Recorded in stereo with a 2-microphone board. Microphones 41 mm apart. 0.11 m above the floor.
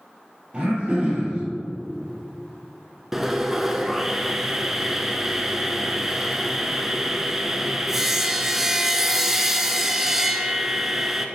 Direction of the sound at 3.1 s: 10° right (ahead or behind).